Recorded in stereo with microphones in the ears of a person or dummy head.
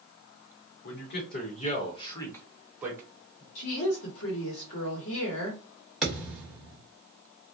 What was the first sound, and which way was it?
A man speaking, 65° left (ahead or behind).